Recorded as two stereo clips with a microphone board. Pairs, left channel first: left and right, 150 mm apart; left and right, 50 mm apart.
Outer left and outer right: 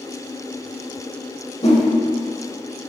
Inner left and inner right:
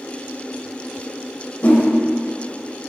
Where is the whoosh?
50° left (ahead or behind), 1.2 m.